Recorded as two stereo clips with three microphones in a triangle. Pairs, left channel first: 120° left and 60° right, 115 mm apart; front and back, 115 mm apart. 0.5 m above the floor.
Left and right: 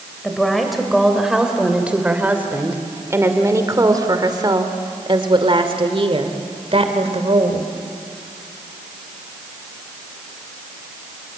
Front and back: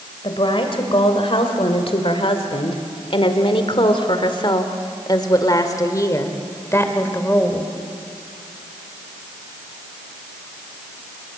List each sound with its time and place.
0.2 s a woman speaking: 35° left, 2.5 m; by 7.7 s 70° right, 2.5 m